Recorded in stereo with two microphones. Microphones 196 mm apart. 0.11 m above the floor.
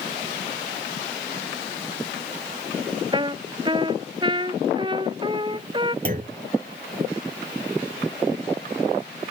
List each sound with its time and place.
3.1 s a trumpet: 25° right (ahead or behind)
6.0 s a clunk: 45° right (ahead or behind)